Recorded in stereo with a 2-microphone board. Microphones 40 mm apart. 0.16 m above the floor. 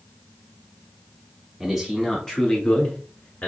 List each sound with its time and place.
1.6 s a man speaking: 10° right (ahead or behind), 1.1 m; by 3.5 s 40° left (ahead or behind), 1.7 m